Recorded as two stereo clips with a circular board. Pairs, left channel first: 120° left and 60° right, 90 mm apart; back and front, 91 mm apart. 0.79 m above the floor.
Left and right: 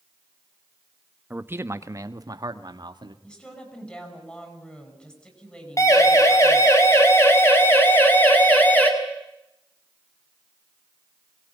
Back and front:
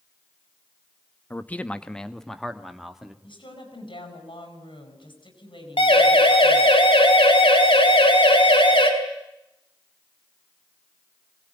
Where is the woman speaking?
160° right, 8 m.